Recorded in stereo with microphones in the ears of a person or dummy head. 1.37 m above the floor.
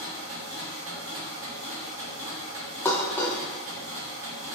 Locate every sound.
0.0 s a machine running: 60° right (ahead or behind), 0.8 m
2.9 s dishes clattering: 10° left (ahead or behind), 0.5 m